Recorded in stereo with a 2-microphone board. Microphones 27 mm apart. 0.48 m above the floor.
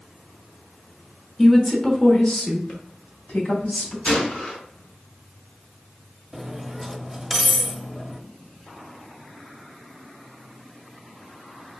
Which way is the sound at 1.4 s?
10° left (ahead or behind).